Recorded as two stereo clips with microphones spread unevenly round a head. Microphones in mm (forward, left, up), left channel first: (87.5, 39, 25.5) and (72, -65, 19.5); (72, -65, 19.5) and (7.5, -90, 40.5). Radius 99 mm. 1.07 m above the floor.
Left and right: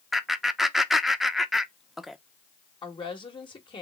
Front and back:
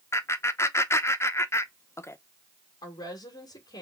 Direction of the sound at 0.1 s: 10° right.